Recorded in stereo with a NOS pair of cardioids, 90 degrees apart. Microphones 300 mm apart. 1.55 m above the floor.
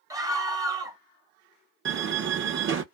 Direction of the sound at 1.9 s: 45° right.